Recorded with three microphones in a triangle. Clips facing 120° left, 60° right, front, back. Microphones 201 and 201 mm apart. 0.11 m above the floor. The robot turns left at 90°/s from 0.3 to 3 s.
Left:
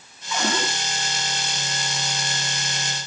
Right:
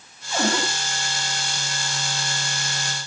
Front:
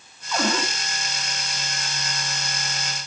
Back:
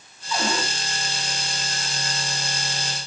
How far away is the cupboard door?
About 5 m.